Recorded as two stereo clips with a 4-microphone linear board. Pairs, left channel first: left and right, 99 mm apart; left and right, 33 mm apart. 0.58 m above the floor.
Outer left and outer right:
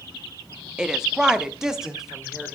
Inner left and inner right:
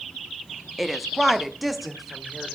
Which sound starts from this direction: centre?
A woman speaking, at 0.8 s.